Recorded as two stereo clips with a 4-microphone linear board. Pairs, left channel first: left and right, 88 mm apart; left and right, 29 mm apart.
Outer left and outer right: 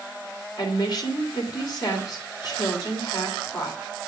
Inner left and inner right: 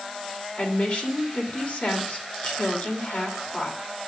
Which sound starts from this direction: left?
A woman speaking, at 0.6 s.